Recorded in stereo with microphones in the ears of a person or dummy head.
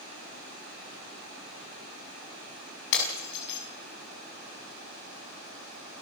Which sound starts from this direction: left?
Breaking glass, at 2.9 s.